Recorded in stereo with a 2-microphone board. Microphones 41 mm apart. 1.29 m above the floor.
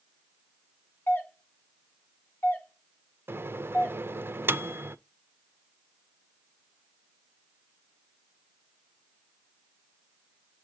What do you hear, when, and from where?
1.1 s a doorbell: 55° left (ahead or behind), 1.4 m
3.3 s a microwave: 65° right (ahead or behind), 0.5 m